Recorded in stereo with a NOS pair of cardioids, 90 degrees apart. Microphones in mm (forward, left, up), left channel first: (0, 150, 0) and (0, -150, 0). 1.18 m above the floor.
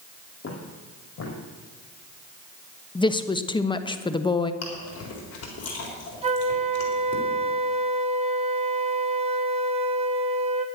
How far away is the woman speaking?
About 1.0 m.